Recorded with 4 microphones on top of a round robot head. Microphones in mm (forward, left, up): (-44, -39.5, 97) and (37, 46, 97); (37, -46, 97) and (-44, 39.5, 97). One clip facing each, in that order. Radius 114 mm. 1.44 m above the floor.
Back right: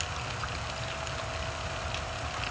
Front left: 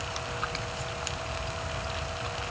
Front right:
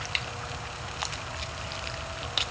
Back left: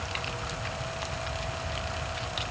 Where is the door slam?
No door slam in this recording.